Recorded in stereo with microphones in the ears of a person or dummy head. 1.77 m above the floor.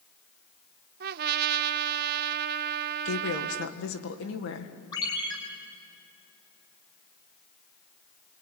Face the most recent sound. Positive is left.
turn(degrees=30)  # may be behind; listen again after turning